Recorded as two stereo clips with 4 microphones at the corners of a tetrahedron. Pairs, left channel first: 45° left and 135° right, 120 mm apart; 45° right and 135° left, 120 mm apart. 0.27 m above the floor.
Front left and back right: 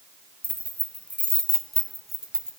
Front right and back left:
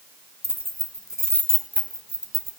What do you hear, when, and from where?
0.4 s keys jangling: 30° right, 1.5 m; by 2.5 s 140° left, 1.3 m